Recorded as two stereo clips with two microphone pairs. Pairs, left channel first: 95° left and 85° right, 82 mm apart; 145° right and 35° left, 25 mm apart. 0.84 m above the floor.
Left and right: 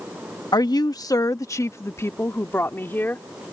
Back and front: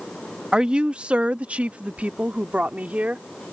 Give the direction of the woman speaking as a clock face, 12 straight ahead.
9 o'clock.